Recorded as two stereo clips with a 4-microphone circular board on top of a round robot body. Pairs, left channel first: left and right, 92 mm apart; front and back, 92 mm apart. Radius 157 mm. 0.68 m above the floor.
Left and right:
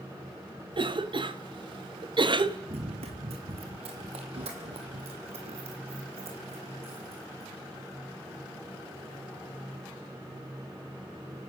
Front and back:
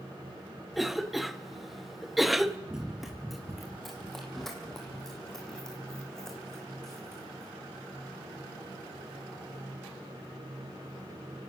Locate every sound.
0.7 s a cough: 90° right, 1.4 m
2.7 s running footsteps: 95° right, 0.9 m; by 7.5 s 85° right, 4 m